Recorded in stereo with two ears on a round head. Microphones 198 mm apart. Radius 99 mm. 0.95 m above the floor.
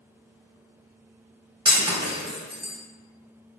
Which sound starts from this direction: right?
Breaking glass, at 1.6 s.